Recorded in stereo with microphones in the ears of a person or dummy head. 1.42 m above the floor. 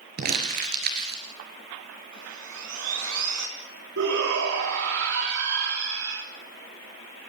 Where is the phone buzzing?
No phone buzzing in this recording.